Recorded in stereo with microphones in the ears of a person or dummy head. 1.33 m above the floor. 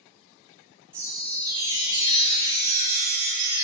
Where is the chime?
20° right (ahead or behind), 1.0 m.